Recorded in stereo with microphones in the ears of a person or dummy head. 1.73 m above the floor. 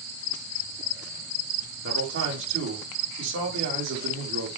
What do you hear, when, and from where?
1.8 s a man speaking: 70° right (ahead or behind), 4 m